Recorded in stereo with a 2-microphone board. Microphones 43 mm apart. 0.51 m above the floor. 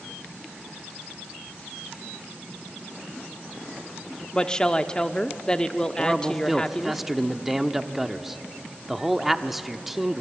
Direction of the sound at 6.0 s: 5° right (ahead or behind).